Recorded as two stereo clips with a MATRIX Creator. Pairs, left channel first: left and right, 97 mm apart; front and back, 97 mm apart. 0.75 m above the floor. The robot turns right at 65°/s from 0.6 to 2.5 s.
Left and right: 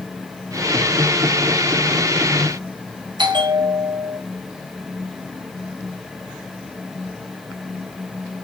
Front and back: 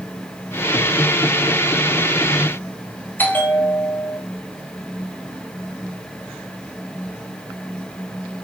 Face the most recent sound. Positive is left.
turn(degrees=-65)